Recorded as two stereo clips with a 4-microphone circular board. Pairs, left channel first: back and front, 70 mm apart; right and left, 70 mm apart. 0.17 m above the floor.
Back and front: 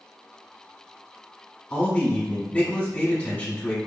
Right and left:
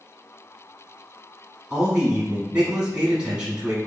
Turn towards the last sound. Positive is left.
turn(degrees=150)